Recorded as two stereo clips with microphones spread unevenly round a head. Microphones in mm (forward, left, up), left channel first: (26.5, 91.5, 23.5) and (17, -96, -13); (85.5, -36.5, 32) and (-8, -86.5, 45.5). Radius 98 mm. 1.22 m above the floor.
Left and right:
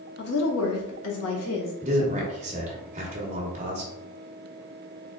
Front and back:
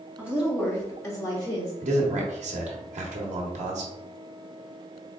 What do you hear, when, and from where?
0.2 s a woman speaking: 130° left, 0.7 m; by 1.7 s 90° left, 1.5 m
1.8 s a man speaking: 150° right, 1.0 m